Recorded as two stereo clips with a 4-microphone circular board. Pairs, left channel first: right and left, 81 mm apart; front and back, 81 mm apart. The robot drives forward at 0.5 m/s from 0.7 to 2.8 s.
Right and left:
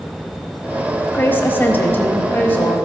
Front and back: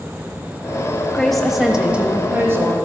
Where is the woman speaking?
75° right, 1.0 m; by 2.8 s 145° right, 1.2 m.